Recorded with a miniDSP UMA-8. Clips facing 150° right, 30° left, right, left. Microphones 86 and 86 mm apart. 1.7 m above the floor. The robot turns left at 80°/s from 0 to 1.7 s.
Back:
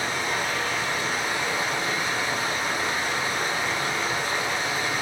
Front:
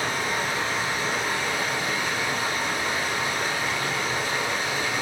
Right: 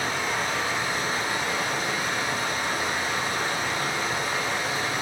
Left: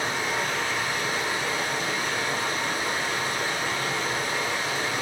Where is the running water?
35° left, 1.2 m; by 5.0 s 105° right, 1.2 m.